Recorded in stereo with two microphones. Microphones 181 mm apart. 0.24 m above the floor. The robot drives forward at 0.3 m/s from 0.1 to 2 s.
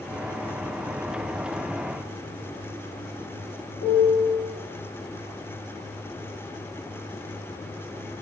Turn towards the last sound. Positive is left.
turn(degrees=50)  # may be behind; listen again after turning